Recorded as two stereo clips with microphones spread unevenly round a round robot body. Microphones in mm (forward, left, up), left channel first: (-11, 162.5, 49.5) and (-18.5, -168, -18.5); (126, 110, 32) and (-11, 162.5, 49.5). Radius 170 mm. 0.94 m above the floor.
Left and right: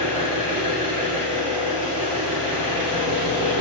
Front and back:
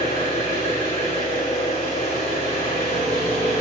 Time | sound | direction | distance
0.0 | an engine running | 70° right | 1.2 m